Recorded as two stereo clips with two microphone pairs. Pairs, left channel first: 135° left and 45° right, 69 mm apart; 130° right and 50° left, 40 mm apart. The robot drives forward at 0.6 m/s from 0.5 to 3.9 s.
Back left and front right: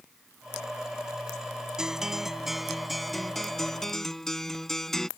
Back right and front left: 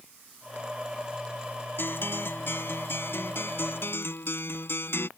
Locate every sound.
1.8 s a guitar: 125° right; by 5.1 s 140° right